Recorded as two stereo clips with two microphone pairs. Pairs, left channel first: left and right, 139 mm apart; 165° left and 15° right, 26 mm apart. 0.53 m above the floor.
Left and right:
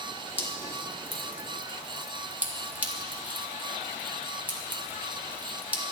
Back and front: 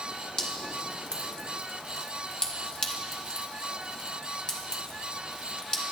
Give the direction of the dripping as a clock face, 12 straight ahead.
5 o'clock.